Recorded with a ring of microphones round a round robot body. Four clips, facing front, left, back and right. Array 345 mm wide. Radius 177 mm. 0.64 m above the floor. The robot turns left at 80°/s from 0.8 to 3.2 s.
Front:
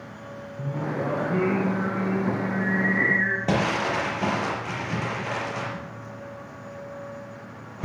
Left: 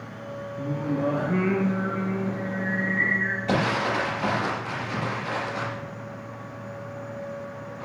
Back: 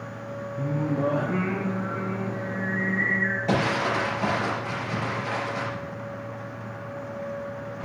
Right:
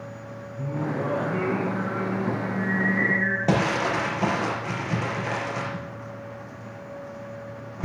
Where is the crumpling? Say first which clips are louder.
Even, even; 65° right, 6.5 m.